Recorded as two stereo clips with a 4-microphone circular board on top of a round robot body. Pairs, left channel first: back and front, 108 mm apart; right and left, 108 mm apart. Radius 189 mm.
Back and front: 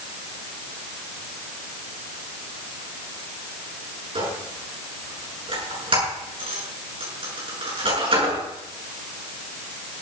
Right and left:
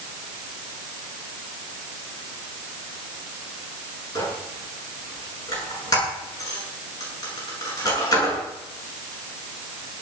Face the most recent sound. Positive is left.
turn(degrees=-35)